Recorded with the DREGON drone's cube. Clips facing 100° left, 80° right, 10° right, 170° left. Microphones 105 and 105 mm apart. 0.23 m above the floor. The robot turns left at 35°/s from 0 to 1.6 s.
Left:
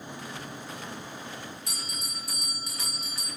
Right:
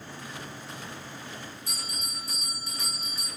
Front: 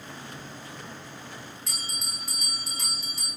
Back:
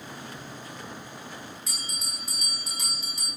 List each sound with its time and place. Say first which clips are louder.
1.7 s a bell: even, even; 80° left, 4 m